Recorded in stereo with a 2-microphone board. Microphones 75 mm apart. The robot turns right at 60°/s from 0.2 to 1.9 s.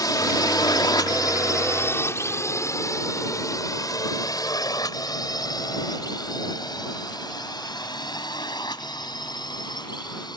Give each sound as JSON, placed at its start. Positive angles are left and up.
{"t": 0.0, "sound": "a drone", "side_deg": 60}